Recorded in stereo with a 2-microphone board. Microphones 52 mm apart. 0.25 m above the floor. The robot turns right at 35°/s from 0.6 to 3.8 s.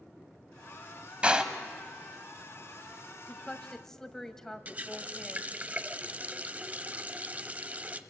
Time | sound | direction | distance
1.2 | a door slam | 20° right (ahead or behind) | 1.2 m
3.3 | a woman speaking | 15° left (ahead or behind) | 1.3 m
4.7 | a running tap | 30° right (ahead or behind) | 0.8 m